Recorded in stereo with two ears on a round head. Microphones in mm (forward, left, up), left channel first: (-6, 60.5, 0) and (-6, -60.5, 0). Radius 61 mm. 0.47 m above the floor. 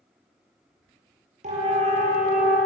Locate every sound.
1.4 s a siren: 50° right (ahead or behind), 9.5 m